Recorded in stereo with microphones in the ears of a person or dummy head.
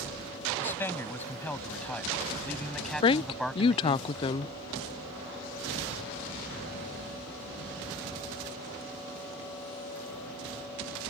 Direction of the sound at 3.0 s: 30° left (ahead or behind).